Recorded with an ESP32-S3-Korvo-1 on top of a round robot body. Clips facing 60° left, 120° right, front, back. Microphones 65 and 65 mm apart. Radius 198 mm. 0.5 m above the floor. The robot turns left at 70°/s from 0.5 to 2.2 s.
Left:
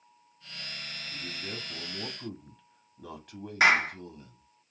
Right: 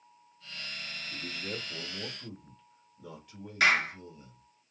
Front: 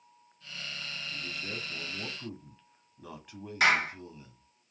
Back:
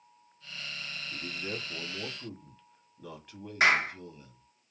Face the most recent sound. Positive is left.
turn(degrees=120)